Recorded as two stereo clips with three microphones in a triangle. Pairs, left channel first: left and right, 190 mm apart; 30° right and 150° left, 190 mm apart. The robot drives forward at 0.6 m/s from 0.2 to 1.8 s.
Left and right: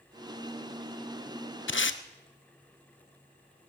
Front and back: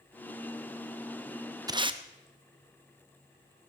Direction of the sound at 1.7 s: 80° left.